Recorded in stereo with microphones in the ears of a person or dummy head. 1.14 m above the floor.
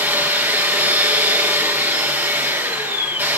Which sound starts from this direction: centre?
A machine running, at 0.0 s.